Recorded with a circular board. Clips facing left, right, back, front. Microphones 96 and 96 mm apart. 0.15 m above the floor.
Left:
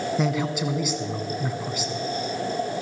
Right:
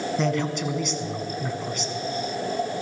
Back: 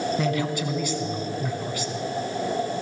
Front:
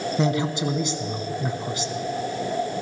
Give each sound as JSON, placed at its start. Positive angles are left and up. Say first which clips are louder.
{"t": 0.2, "sound": "a man speaking", "louder": "right 1 dB, front 2 dB", "azimuth_deg": 15, "distance_m": 1.0}